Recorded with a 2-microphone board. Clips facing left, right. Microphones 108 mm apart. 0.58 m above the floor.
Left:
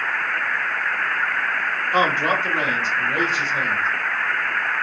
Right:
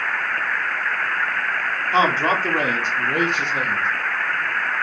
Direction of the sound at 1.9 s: 20° right (ahead or behind).